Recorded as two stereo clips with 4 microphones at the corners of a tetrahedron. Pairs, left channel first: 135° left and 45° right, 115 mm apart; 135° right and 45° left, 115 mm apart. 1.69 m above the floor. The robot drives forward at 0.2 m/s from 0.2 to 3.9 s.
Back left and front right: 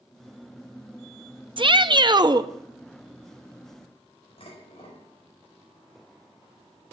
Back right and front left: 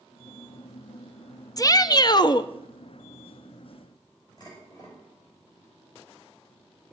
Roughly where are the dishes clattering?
Behind.